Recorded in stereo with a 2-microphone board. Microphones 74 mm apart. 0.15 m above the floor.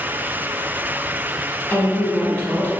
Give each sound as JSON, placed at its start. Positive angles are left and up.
{"t": 1.7, "sound": "a woman speaking", "side_deg": 25, "distance_m": 1.1}